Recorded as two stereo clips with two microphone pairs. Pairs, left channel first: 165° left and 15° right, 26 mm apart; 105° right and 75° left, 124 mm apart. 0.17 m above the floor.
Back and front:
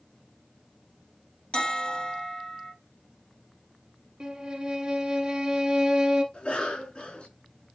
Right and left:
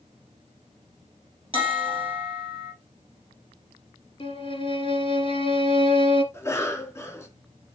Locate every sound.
1.5 s a bell: 115° left, 1.9 m
4.2 s a violin: 65° right, 0.9 m
6.3 s a cough: 165° right, 2.5 m